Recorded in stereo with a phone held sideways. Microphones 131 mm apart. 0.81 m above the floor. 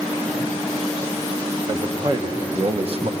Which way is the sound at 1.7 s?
35° right (ahead or behind).